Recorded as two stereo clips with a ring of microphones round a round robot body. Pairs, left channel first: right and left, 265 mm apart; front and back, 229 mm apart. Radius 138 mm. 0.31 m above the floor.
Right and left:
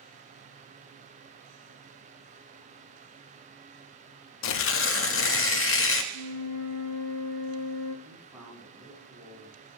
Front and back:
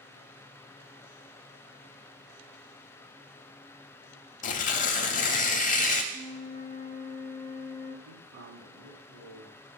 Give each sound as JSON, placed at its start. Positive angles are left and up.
{"t": 4.4, "sound": "tearing paper", "azimuth_deg": -55, "distance_m": 0.6}
{"t": 6.1, "sound": "a flute", "azimuth_deg": -115, "distance_m": 1.6}
{"t": 8.1, "sound": "a man speaking", "azimuth_deg": 170, "distance_m": 2.5}